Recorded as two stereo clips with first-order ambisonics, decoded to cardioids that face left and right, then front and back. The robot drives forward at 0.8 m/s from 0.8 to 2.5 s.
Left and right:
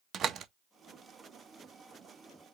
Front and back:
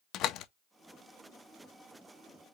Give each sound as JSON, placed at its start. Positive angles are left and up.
{"t": 0.1, "sound": "a door slam", "azimuth_deg": -35, "distance_m": 0.6}